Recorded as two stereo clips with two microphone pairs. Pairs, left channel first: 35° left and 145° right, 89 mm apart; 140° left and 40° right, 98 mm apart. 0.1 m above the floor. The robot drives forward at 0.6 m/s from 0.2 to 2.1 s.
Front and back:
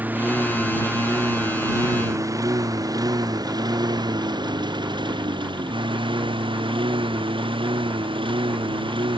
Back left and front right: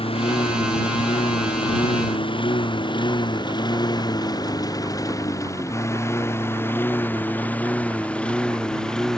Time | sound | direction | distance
0.0 | a lawn mower | 145° left | ?